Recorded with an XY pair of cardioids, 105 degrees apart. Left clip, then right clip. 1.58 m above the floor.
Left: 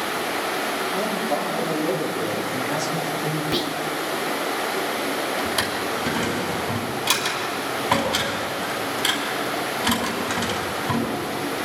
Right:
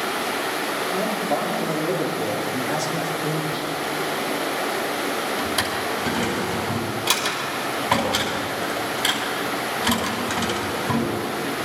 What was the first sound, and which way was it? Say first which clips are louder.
A man speaking: right 1 dB; 15° right.